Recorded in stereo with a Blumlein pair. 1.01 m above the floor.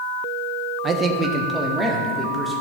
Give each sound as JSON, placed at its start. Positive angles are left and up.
{"t": 0.8, "sound": "a man speaking", "azimuth_deg": -20, "distance_m": 1.1}